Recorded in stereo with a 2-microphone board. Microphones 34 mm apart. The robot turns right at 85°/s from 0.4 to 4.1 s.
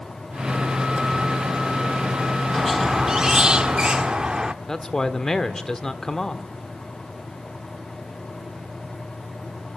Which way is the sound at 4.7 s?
15° left (ahead or behind).